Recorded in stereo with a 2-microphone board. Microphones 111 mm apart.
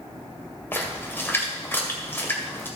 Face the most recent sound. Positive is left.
turn(degrees=20)  # may be behind; listen again after turning